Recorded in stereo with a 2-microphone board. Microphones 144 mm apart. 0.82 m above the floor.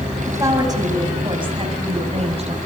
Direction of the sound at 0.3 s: 20° right (ahead or behind).